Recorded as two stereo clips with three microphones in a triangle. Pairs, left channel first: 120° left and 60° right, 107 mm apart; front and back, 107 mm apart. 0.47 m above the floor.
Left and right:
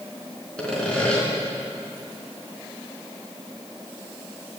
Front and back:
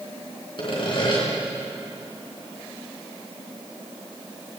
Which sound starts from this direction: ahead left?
Sawing, at 0.6 s.